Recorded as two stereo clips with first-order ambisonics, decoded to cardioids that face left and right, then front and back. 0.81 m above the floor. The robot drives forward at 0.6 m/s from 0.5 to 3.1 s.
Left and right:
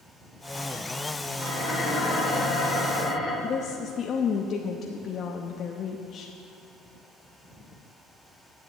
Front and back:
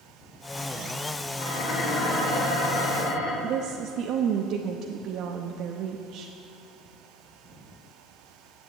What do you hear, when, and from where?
1.4 s dishes clattering: 10° right, 5 m
3.4 s a woman speaking: 145° left, 0.6 m